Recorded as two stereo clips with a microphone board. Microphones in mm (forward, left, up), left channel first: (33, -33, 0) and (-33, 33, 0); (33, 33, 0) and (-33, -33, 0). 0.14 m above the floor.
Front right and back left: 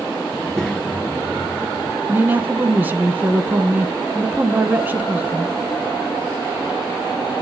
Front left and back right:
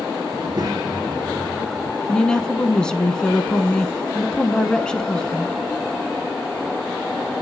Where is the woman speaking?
110° left, 1.1 m.